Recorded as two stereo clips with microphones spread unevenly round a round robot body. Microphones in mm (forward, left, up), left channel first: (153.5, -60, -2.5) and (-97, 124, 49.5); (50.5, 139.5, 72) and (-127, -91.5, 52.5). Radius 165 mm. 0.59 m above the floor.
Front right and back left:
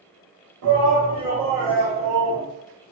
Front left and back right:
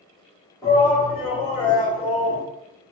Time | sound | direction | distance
0.6 | a shout | 130° left | 1.6 m